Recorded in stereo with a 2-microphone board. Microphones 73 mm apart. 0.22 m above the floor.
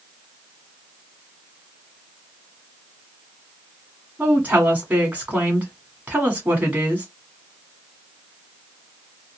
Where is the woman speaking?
20° right (ahead or behind), 1.9 m.